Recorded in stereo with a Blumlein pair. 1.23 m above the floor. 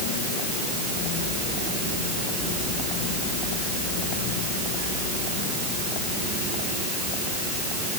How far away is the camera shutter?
I don't hear a camera shutter.